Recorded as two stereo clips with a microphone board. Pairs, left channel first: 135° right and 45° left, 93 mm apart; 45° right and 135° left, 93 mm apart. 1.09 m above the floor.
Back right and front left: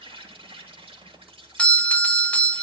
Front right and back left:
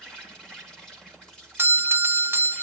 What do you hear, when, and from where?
0.0 s an insect: 35° left, 3 m
1.6 s a doorbell: 165° left, 0.6 m